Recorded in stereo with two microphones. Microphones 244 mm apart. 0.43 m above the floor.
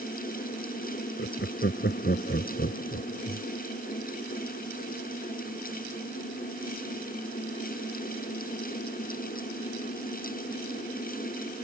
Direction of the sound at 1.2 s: 45° left (ahead or behind).